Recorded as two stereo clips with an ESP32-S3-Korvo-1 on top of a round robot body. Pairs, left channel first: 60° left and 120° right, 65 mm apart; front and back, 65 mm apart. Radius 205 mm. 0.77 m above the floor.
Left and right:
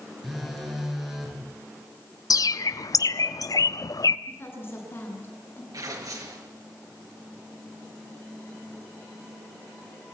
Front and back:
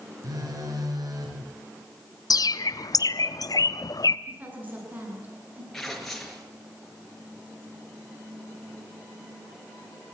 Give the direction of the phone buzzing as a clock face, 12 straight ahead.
7 o'clock.